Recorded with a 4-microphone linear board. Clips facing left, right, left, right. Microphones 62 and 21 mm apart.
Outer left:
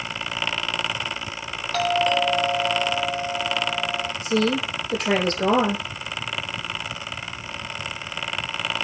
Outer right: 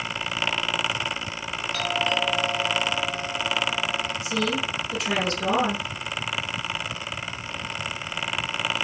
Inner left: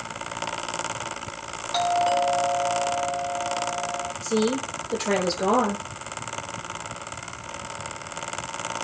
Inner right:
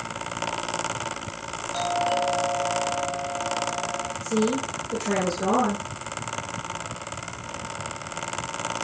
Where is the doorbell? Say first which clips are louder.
Outer left 6 dB, inner left 3 dB; 75° left (ahead or behind), 7 m.